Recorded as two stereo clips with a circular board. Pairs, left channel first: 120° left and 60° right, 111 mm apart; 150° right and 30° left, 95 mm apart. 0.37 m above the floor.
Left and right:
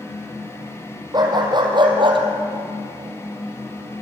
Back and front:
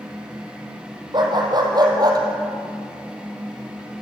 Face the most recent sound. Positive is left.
turn(degrees=-20)